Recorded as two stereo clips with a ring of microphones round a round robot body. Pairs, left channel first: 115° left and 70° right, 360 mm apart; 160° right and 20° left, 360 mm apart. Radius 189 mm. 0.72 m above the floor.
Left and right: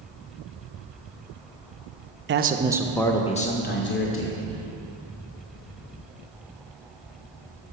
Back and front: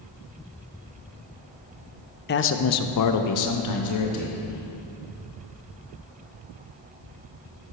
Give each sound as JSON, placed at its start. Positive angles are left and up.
{"t": 2.3, "sound": "a man speaking", "azimuth_deg": -110, "distance_m": 0.6}